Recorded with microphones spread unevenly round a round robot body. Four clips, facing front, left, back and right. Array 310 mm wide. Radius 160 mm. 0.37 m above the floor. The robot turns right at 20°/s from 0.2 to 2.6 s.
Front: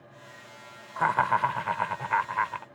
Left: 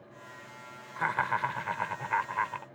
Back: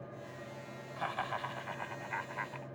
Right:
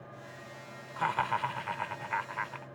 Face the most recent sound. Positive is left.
turn(degrees=35)